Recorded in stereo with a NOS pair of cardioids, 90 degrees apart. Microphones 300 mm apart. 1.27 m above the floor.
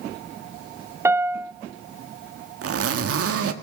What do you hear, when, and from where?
1.1 s a piano: 10° right, 0.6 m
2.6 s a zipper: 50° right, 1.5 m